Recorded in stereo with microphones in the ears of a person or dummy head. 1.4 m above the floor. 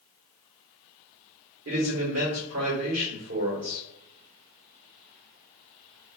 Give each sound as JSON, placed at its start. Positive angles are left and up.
{"t": 1.6, "sound": "a man speaking", "side_deg": -75, "distance_m": 1.6}